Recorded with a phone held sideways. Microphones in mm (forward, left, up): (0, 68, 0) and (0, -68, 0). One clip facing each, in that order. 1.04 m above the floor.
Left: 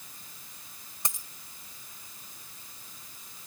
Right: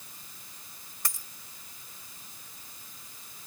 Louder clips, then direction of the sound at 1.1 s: Left 1 dB; 20° left (ahead or behind).